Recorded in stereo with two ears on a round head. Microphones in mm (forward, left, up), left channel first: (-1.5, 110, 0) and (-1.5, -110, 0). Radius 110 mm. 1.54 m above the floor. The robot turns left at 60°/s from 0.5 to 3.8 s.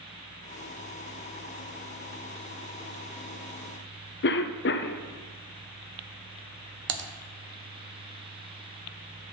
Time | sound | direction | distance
4.2 | a cough | 45° left (ahead or behind) | 0.5 m
6.9 | typing on a keyboard | 50° right (ahead or behind) | 0.5 m